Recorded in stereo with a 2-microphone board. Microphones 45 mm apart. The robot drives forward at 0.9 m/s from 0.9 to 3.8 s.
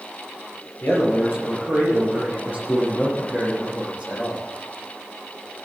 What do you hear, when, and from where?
0.8 s a man speaking: 55° left (ahead or behind), 6 m; by 4.5 s 40° left (ahead or behind), 8 m